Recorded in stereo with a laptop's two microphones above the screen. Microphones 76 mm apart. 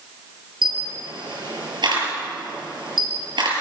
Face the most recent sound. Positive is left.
turn(degrees=-80)